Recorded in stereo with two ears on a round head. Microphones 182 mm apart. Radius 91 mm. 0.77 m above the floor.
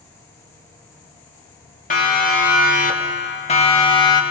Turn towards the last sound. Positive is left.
turn(degrees=20)  # may be behind; listen again after turning